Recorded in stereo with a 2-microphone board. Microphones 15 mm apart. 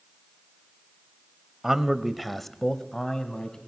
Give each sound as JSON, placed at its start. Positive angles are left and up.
{"t": 1.6, "sound": "a man speaking", "side_deg": -35, "distance_m": 1.2}